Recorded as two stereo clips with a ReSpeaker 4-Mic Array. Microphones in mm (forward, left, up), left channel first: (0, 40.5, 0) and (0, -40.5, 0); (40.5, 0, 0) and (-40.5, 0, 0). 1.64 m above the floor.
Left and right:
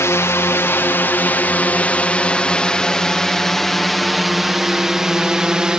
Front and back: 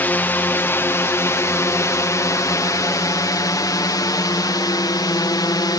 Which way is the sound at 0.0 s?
55° left.